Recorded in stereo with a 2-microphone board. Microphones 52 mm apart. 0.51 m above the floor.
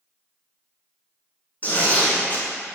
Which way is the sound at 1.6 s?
35° left (ahead or behind).